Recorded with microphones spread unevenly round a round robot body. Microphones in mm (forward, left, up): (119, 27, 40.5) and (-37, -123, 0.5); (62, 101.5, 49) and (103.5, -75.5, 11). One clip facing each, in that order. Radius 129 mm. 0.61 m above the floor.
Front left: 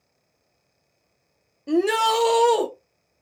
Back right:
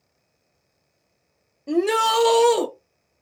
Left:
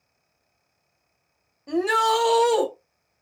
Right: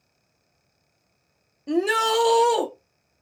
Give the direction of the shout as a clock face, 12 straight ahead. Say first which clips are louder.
Even, right 1 dB; 2 o'clock.